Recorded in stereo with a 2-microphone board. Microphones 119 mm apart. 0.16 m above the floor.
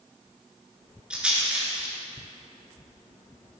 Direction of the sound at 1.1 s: 10° right (ahead or behind).